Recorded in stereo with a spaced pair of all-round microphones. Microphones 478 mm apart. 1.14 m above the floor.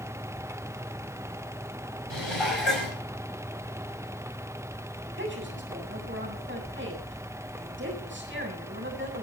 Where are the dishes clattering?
70° left (ahead or behind), 5 m.